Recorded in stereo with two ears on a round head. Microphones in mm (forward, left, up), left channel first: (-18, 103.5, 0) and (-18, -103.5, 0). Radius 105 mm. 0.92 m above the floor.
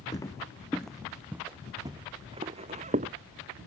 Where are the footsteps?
15° left (ahead or behind); by 3.1 s 30° right (ahead or behind).